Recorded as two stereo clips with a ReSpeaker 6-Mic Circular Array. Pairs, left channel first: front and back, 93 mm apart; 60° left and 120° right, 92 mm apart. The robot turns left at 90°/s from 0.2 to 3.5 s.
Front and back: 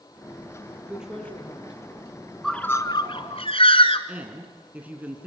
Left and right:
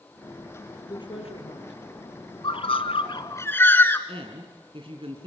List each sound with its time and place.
0.9 s a woman speaking: 110° left, 7 m; by 2.3 s 20° right, 7 m
2.4 s a bird: 85° left, 1.4 m; by 4.0 s 10° right, 1.4 m
4.1 s a woman speaking: 105° right, 3 m